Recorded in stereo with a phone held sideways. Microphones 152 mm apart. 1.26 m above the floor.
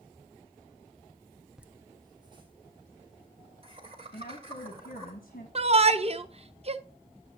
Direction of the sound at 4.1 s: 65° left (ahead or behind).